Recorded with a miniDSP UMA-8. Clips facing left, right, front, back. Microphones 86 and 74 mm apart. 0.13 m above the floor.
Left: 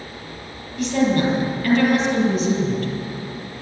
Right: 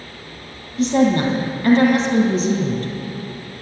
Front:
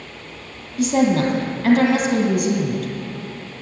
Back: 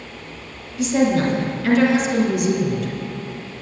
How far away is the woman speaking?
About 3 m.